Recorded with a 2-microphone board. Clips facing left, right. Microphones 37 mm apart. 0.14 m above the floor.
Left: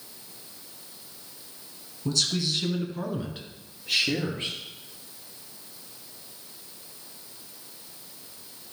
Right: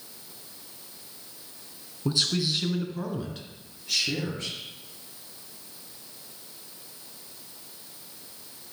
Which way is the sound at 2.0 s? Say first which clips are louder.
Right 1 dB; 25° right (ahead or behind).